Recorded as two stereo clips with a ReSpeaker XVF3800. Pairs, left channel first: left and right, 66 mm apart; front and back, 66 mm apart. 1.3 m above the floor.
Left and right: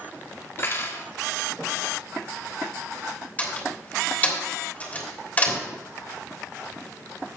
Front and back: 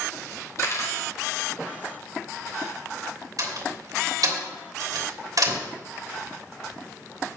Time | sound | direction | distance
0.6 | cutlery clinking | 35° left | 1.8 m
3.4 | a door slam | 155° left | 3 m